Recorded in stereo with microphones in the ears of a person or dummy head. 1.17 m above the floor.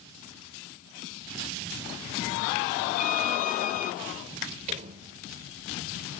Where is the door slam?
35° right (ahead or behind).